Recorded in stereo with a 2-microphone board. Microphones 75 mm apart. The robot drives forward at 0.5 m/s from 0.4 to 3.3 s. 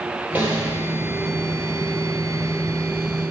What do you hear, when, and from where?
0.3 s a snare drum: 25° right (ahead or behind), 3.5 m